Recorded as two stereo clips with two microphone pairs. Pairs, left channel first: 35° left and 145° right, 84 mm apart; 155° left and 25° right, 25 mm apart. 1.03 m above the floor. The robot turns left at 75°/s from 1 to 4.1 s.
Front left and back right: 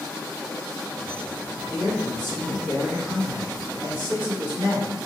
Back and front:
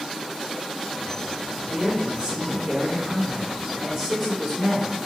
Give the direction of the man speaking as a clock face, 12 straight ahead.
10 o'clock.